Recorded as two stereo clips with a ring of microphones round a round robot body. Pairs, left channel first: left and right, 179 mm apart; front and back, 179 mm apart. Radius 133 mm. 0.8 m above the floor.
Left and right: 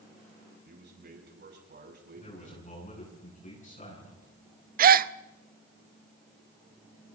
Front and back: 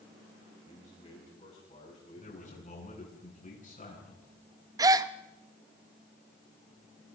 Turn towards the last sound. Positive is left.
turn(degrees=-110)